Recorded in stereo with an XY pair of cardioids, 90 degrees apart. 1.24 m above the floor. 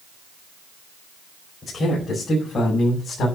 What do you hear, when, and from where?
1.6 s a man speaking: 50° left, 4.5 m